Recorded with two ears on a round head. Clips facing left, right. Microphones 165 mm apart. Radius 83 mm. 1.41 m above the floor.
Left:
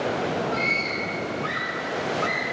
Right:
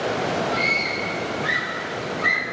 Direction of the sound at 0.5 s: 15° right (ahead or behind).